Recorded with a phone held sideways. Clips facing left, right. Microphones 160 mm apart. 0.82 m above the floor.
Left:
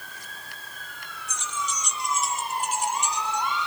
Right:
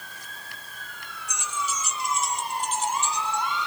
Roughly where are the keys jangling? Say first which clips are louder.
Right 1 dB; centre.